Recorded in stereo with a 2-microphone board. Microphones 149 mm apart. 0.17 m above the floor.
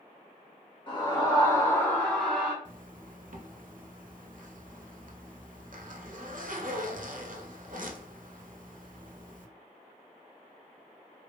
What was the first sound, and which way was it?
A scream, 35° left (ahead or behind).